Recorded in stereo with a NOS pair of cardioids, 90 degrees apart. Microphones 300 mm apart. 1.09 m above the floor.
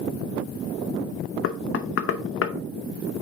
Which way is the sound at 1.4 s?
45° left.